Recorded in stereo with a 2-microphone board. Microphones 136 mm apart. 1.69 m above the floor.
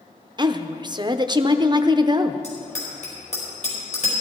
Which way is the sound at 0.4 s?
30° right (ahead or behind).